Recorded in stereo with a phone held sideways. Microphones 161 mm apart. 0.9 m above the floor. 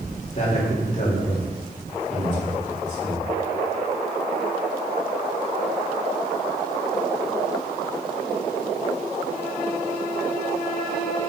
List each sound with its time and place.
0.3 s a man speaking: 50° left (ahead or behind), 3 m